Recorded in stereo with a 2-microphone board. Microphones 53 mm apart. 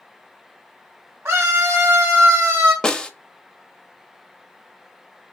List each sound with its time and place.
1.2 s a scream: 45° right (ahead or behind), 2.5 m; by 2.7 s 20° right (ahead or behind), 2.0 m
2.8 s a snare drum: 15° left (ahead or behind), 0.6 m